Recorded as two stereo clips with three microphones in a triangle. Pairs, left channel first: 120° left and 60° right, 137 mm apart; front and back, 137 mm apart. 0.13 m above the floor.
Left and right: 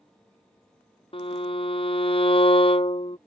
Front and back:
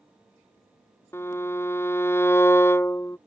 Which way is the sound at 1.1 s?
70° left.